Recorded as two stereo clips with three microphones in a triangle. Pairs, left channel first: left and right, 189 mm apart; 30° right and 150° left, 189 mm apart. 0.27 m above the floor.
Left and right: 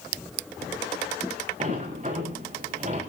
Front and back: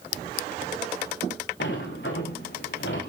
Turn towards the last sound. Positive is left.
turn(degrees=-40)